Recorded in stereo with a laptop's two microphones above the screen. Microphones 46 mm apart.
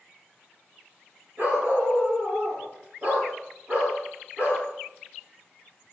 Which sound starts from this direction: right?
A dog barking, at 1.4 s.